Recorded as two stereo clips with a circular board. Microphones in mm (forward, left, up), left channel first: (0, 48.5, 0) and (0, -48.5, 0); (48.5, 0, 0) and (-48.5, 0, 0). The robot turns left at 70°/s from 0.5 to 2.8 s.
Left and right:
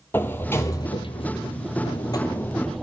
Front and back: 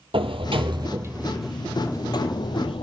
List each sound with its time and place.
0.1 s a sliding door: 160° left, 1.2 m; by 2.8 s 5° right, 1.2 m